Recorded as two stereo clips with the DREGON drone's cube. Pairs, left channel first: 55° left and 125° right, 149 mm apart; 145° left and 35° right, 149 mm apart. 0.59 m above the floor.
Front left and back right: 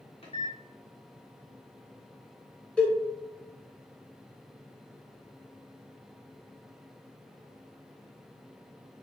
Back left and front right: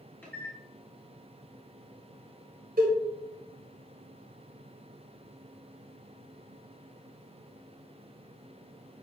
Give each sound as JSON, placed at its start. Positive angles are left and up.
{"t": 0.2, "sound": "a microwave", "azimuth_deg": 75, "distance_m": 1.0}
{"t": 2.8, "sound": "a cowbell", "azimuth_deg": -25, "distance_m": 1.5}